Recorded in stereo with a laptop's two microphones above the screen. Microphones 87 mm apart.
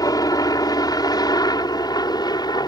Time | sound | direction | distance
0.0 | a helicopter | 45° left (ahead or behind) | ?